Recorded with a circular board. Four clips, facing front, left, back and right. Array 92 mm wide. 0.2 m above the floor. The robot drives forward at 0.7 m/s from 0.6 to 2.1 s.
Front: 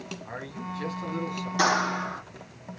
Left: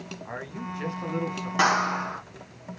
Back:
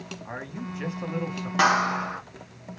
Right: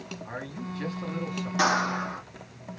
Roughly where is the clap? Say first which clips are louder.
Left 2 dB, back 3 dB; behind left.